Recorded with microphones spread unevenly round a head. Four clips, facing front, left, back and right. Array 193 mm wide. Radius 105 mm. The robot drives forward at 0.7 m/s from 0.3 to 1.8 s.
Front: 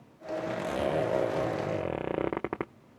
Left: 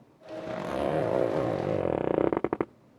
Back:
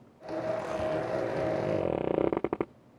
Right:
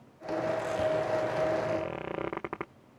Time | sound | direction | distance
0.5 | a zipper | 60° left | ?